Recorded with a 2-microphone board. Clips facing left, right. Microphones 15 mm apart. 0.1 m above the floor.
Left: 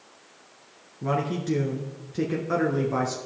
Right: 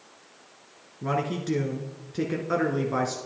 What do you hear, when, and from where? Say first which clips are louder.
1.0 s a man speaking: left 1 dB; 10° right (ahead or behind), 1.1 m